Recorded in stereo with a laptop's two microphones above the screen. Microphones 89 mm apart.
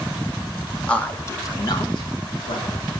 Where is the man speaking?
10° left (ahead or behind), 1.4 m; by 2.9 s 75° left (ahead or behind), 3 m.